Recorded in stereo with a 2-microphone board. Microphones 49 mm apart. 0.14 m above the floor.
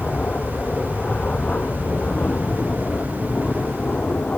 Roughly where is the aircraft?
Left.